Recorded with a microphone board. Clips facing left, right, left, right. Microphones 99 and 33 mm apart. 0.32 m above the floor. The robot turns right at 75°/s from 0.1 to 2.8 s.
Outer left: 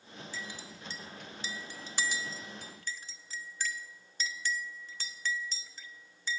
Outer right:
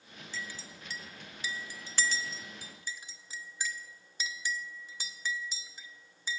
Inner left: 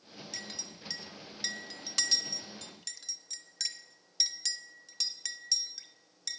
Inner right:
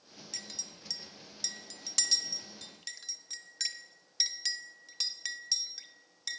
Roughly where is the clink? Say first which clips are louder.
Outer right 2 dB, inner left 1 dB; centre.